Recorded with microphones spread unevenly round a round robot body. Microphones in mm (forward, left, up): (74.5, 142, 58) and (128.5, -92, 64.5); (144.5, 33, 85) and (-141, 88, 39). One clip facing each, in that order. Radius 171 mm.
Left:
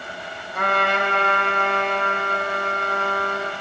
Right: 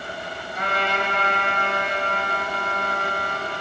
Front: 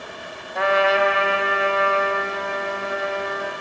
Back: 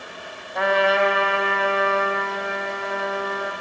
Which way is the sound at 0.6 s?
85° left.